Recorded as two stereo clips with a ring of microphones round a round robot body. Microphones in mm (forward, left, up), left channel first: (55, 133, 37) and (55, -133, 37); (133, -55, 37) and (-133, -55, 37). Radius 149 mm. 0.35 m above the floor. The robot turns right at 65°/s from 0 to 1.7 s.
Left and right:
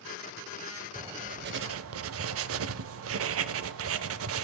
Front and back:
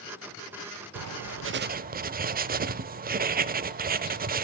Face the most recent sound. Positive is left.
turn(degrees=-125)